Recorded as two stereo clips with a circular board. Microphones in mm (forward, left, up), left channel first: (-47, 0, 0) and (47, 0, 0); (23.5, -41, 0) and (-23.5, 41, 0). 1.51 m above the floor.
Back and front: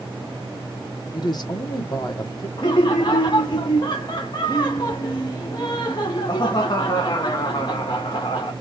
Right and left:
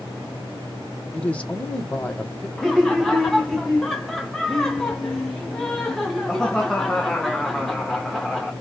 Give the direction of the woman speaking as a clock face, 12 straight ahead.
5 o'clock.